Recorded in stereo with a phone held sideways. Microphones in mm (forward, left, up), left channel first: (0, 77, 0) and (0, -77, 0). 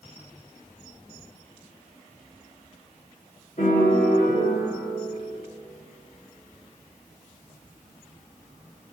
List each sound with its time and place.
3.6 s a piano: 50° left (ahead or behind), 5.5 m